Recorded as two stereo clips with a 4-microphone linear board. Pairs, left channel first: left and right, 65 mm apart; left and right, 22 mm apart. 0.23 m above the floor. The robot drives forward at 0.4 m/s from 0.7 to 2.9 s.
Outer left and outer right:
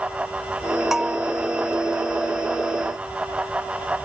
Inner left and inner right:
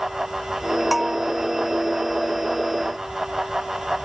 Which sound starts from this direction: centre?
A bell, at 0.9 s.